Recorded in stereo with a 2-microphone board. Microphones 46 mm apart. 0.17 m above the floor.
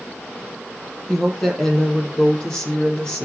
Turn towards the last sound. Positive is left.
turn(degrees=20)  # may be behind; listen again after turning